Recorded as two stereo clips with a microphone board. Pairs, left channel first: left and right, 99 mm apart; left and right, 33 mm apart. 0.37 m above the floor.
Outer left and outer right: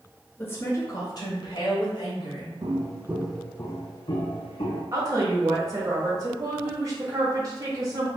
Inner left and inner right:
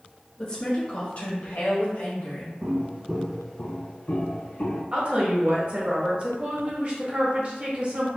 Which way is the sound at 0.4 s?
20° left (ahead or behind).